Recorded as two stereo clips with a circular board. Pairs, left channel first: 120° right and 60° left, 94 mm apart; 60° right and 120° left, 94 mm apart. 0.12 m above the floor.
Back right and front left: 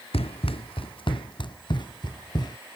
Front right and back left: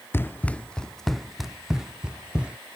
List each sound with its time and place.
0.1 s running footsteps: 125° right; by 2.6 s 160° right